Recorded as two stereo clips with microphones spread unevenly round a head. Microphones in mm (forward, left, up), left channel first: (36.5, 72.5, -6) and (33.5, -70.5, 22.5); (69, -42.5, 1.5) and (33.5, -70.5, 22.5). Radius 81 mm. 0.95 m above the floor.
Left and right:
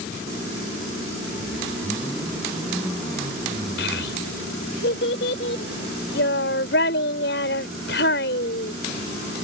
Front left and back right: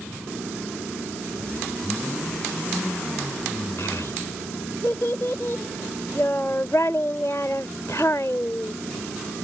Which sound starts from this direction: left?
A child speaking, at 3.8 s.